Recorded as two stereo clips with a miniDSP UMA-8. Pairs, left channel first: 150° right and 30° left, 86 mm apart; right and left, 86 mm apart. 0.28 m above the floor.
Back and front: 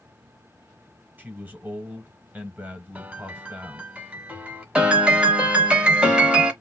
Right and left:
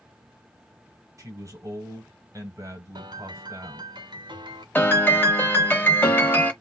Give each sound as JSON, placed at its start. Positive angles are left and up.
{"t": 1.2, "sound": "a man speaking", "azimuth_deg": 85, "distance_m": 1.2}
{"t": 3.0, "sound": "a piano", "azimuth_deg": 100, "distance_m": 0.8}
{"t": 4.8, "sound": "a piano", "azimuth_deg": -40, "distance_m": 0.8}